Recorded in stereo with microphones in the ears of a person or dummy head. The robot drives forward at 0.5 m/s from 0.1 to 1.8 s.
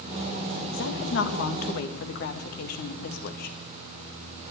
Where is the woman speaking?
70° left (ahead or behind), 2 m; by 3.6 s 60° left (ahead or behind), 2.5 m.